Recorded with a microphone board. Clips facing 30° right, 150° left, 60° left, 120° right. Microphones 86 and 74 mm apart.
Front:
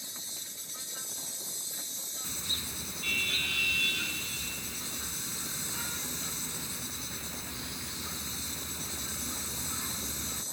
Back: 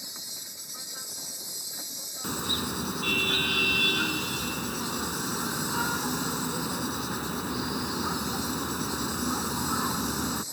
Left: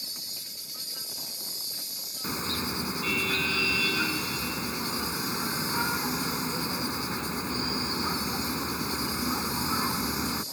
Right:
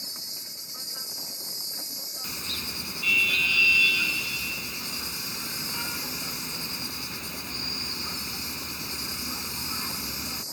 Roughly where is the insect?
Behind.